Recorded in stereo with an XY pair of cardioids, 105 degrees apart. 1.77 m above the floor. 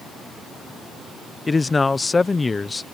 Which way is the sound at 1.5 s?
20° left.